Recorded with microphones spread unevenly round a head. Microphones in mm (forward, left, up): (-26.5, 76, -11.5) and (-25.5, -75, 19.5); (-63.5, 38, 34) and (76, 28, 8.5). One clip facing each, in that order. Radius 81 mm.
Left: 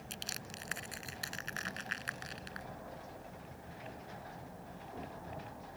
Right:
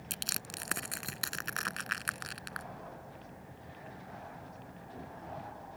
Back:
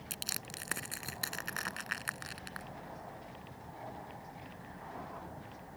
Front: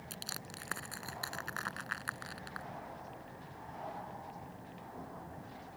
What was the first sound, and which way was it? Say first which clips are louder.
Crushing: right 3 dB, back 1 dB; 110° right.